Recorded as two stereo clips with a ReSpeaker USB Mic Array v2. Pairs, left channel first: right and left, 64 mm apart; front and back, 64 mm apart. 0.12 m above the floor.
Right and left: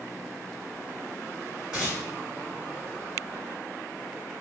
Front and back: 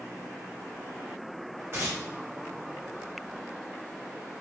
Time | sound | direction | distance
1.7 | tearing paper | 160° left | 1.6 m